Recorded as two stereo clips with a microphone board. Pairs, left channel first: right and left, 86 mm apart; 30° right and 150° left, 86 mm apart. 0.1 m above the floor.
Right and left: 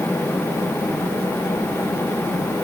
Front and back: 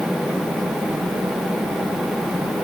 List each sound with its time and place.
Only background noise.